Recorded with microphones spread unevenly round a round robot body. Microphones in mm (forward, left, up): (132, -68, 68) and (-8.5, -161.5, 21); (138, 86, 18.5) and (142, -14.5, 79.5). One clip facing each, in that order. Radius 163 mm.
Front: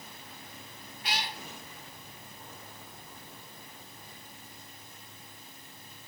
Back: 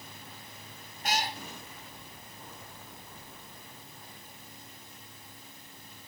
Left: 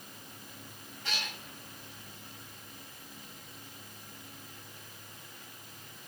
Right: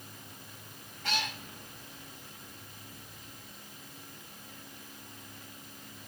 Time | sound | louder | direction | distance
1.0 | a cat meowing | back 5 dB, right 6 dB | 95° right | 1.3 m